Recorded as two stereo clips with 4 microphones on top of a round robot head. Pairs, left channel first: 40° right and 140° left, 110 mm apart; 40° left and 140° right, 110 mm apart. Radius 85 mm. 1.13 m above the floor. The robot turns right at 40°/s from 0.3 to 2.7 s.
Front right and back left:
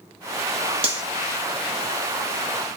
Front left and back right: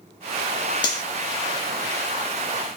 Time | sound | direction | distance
0.8 | cutlery clinking | 95° left | 1.0 m